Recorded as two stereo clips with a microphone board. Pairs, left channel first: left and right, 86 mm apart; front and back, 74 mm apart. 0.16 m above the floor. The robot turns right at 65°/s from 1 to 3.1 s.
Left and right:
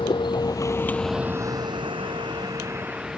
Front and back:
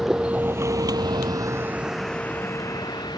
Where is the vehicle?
95° left; by 3.2 s 5° right.